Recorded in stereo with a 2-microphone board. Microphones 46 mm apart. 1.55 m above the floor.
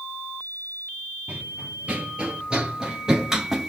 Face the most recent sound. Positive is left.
turn(degrees=-5)  # may be behind; listen again after turning